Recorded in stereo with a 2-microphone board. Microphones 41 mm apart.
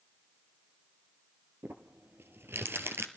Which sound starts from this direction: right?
Crumpling, at 1.6 s.